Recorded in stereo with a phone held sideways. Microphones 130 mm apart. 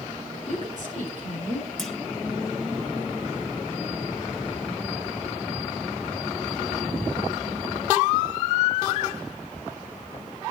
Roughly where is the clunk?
Centre.